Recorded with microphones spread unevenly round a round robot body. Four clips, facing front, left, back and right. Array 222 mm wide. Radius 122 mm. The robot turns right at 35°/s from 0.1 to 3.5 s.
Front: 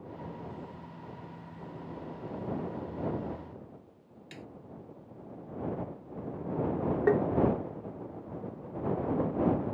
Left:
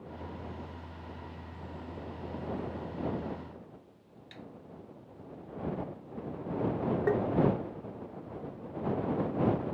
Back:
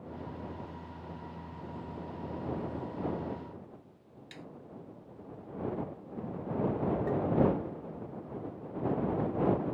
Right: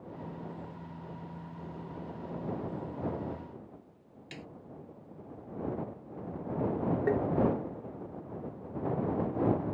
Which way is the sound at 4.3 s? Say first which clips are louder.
Right 2 dB, front 2 dB; 85° right.